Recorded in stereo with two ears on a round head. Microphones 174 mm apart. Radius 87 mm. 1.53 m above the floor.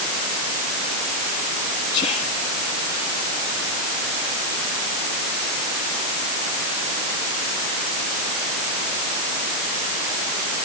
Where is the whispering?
40° left (ahead or behind).